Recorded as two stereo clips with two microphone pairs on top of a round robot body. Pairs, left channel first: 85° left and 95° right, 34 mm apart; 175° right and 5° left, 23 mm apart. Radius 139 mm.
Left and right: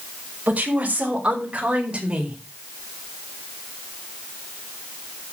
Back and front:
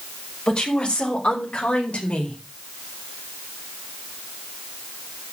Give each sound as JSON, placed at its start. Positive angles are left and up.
{"t": 0.5, "sound": "a woman speaking", "azimuth_deg": -140, "distance_m": 5.5}